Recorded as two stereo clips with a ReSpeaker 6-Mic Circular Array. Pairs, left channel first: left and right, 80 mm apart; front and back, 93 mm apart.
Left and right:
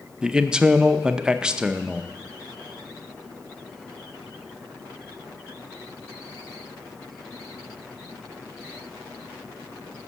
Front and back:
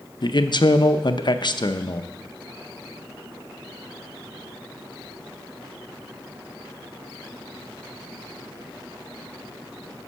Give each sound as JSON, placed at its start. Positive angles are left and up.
{"t": 0.2, "sound": "a man speaking", "azimuth_deg": -15, "distance_m": 0.6}